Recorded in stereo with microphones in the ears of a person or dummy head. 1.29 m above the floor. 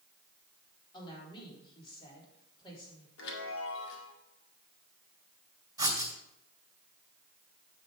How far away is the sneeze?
No sneeze in this recording.